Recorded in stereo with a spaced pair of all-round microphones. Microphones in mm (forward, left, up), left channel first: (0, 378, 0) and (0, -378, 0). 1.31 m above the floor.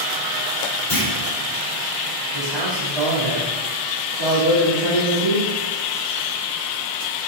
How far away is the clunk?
About 3 m.